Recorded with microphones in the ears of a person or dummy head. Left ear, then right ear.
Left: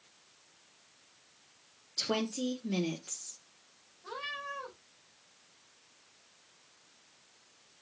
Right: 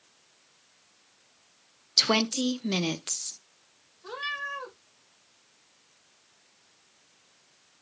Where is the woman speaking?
55° right (ahead or behind), 0.5 m.